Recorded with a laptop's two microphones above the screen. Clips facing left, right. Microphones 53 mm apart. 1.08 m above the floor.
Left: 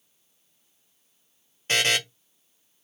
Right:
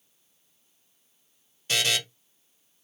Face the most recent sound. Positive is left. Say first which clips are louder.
# left 3 dB
turn(degrees=40)  # may be behind; listen again after turning